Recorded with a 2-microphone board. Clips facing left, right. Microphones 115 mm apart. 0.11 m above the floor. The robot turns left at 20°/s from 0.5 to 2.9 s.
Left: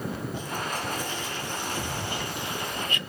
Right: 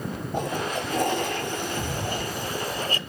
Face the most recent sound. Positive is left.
turn(degrees=-140)